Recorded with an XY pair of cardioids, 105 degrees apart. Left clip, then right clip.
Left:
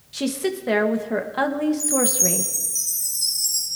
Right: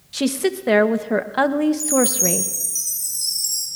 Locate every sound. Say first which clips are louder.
0.1 s a woman speaking: right 4 dB; 30° right, 0.9 m
1.8 s a chime: right 2 dB; 15° right, 8 m